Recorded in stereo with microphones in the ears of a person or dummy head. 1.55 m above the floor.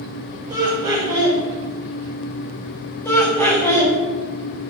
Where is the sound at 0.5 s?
15° right (ahead or behind), 1.0 m.